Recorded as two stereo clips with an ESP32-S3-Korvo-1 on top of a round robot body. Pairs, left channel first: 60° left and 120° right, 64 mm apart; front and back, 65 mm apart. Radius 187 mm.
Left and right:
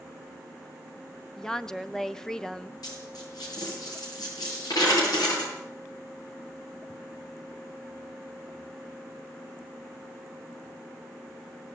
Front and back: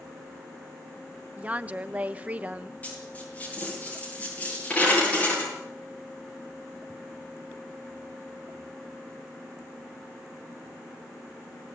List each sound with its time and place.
1.4 s a woman speaking: 135° left, 1.1 m
2.8 s a dropped coin: 65° left, 8.5 m